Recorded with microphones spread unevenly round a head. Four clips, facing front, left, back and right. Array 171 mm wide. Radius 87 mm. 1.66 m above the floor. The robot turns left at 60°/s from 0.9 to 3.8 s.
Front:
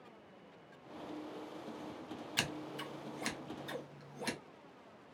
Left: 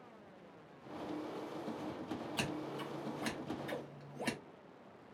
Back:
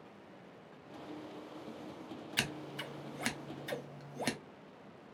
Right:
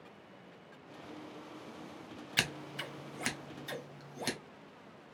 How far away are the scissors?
About 0.8 m.